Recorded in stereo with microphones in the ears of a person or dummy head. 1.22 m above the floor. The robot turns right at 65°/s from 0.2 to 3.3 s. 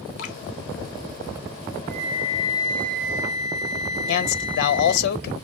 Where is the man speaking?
60° left (ahead or behind), 0.7 m.